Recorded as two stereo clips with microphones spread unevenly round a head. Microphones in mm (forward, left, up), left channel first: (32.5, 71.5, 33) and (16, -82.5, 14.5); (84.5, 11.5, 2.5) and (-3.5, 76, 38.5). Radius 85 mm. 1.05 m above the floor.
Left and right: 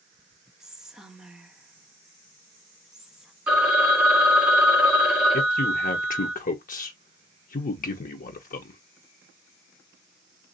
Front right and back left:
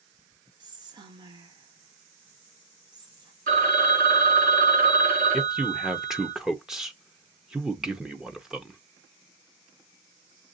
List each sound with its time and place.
0.6 s whispering: 165° right, 0.8 m
3.5 s a phone ringing: straight behind, 1.9 m
5.3 s a man speaking: 50° left, 0.7 m